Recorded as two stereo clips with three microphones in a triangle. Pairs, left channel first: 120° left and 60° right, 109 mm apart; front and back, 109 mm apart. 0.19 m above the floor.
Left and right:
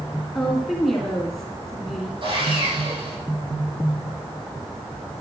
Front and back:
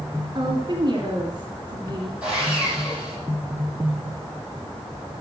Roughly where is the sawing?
Right.